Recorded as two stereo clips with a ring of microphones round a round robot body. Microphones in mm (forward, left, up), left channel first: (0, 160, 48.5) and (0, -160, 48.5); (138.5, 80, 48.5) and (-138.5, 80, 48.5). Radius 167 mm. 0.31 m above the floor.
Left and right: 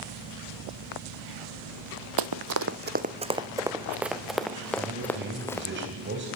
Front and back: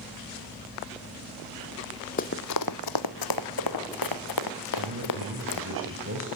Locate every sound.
2.2 s running footsteps: 65° right, 0.7 m; by 5.7 s 5° left, 3 m
4.8 s a man speaking: 140° right, 3 m